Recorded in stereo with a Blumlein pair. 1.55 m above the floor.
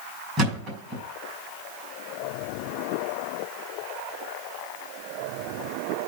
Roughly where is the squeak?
No squeak in this recording.